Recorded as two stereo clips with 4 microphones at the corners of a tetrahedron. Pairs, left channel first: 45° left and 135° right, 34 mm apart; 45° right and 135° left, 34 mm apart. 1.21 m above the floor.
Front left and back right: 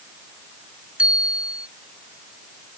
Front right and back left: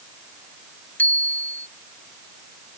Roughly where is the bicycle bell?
Right.